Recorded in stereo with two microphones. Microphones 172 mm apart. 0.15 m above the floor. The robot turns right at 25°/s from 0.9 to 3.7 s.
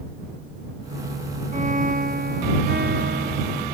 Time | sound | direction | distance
1.5 | a violin | 135° right | ?